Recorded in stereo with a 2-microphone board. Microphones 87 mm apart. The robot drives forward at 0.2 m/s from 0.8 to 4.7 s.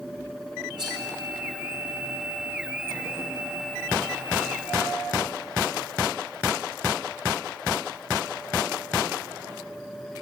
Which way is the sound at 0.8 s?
60° right (ahead or behind).